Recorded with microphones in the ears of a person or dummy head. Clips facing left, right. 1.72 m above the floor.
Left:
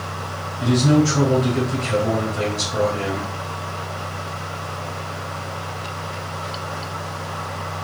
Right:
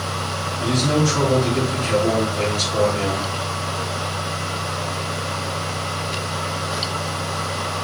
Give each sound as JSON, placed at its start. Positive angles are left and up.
{"t": 0.6, "sound": "a man speaking", "side_deg": 5, "distance_m": 2.0}